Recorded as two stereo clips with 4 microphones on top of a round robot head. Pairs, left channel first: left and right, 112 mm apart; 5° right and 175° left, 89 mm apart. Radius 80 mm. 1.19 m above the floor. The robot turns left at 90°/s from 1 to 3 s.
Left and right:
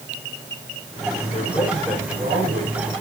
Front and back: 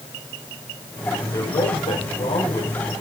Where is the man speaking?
55° left, 4.5 m; by 2.9 s 95° right, 4.5 m.